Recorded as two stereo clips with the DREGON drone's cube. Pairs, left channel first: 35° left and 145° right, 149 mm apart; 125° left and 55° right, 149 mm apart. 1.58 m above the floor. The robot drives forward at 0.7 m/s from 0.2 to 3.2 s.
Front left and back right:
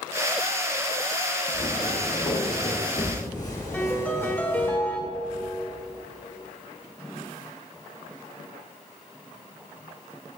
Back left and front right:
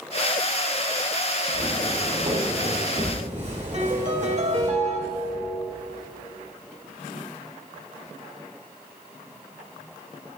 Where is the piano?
40° right, 1.9 m.